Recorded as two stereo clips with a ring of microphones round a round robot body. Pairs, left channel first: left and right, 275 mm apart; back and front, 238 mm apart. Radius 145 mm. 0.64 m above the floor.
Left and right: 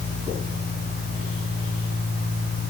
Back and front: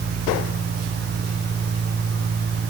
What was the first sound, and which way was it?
Only background noise.